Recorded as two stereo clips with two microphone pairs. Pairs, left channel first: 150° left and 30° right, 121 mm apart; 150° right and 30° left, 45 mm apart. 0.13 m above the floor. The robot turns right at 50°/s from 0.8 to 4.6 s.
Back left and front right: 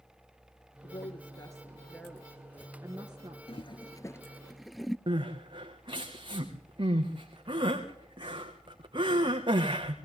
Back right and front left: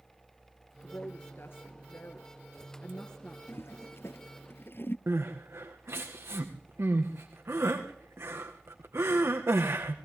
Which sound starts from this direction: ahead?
Crying, at 5.1 s.